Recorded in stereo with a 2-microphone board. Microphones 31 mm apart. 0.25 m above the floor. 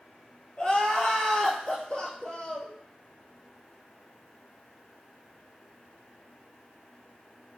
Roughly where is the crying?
Left.